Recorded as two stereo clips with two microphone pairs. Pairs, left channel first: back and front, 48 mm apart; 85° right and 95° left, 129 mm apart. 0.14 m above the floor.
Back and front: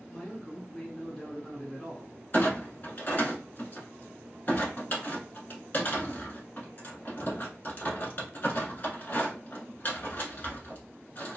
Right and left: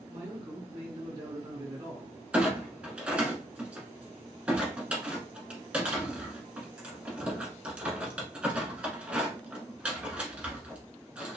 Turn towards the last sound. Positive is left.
turn(degrees=170)